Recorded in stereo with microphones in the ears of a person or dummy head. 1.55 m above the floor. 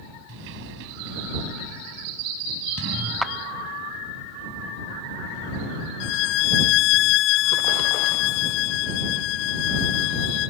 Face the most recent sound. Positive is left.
turn(degrees=65)  # may be behind; listen again after turning